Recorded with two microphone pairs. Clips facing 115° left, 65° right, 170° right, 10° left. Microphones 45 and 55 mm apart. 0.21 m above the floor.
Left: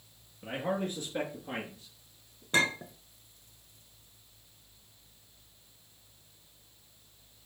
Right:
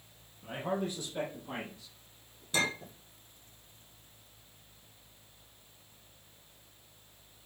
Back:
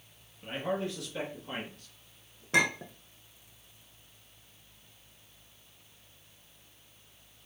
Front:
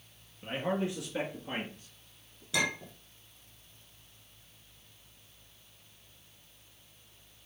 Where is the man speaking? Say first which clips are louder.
Left 2 dB, front 1 dB; 80° left, 3 m; by 2.4 s 55° left, 4 m.